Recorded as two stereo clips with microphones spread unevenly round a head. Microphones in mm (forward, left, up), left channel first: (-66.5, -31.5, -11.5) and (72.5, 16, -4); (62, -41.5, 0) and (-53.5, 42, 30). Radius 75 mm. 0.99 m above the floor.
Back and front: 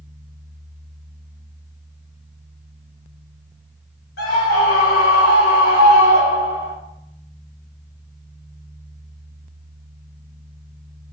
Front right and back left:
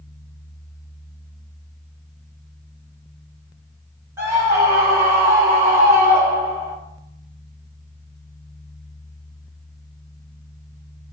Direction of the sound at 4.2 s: 140° right.